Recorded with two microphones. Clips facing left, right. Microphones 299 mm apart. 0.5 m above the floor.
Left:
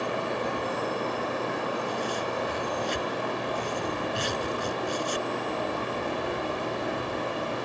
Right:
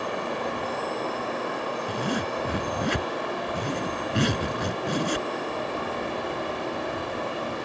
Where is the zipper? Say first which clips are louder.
Right 2 dB; 75° right (ahead or behind).